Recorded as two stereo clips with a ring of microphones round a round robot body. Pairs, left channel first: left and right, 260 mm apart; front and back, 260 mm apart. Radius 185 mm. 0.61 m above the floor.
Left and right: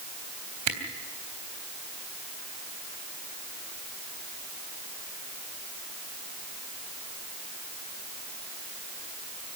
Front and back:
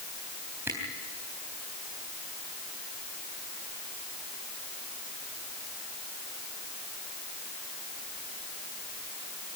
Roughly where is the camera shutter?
Right.